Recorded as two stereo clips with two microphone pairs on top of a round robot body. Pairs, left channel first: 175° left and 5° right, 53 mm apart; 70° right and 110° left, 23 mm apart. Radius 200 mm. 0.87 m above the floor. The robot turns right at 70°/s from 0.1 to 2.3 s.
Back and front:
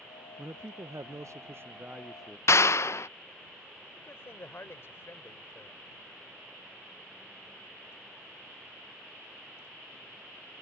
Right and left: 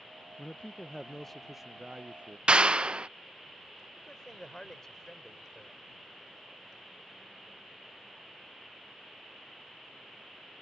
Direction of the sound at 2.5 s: 145° left.